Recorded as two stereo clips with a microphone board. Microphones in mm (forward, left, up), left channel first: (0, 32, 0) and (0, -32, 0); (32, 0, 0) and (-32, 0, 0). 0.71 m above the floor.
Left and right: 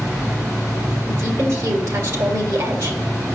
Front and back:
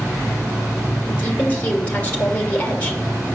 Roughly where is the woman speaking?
Ahead right.